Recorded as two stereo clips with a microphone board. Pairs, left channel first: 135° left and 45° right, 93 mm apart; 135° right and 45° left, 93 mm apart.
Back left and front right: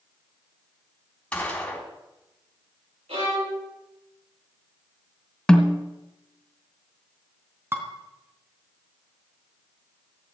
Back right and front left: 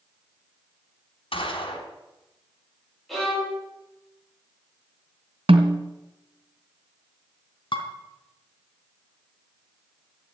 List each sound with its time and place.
1.3 s a gunshot: 145° right, 3.5 m
3.1 s a violin: 45° right, 9.5 m
5.5 s a snare drum: 50° left, 1.9 m
7.7 s dishes clattering: 110° right, 3.5 m